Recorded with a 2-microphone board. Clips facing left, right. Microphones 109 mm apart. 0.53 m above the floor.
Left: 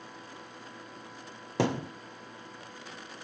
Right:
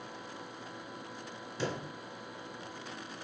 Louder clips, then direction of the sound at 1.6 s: Left 8 dB; 75° left (ahead or behind).